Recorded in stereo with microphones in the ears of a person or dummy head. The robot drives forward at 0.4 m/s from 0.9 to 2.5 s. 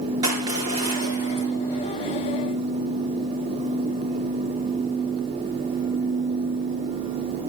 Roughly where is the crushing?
Right.